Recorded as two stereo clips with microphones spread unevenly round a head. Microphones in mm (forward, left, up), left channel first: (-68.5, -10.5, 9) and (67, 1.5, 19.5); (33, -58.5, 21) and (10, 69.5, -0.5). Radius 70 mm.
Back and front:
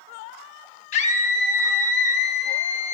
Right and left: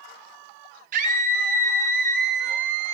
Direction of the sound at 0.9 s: 140° left.